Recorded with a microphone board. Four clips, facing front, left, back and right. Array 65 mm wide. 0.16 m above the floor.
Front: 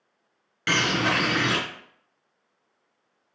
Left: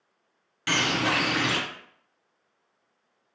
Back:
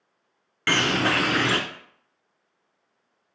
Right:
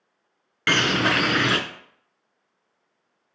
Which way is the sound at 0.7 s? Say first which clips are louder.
Right 4 dB, back 1 dB; 105° right.